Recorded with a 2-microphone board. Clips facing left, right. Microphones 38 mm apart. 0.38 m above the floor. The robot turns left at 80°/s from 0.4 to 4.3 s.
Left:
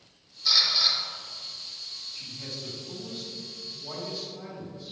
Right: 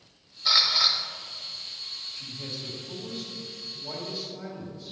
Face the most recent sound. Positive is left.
turn(degrees=0)  # may be behind; listen again after turning